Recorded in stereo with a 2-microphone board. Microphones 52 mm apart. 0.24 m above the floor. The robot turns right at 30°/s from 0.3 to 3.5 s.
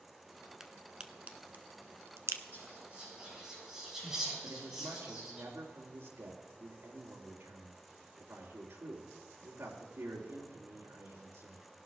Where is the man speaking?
65° right (ahead or behind), 3.5 m.